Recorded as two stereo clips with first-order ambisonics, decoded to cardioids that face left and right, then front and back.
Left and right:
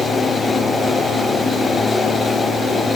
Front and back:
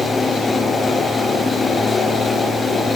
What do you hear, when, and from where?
Only background noise.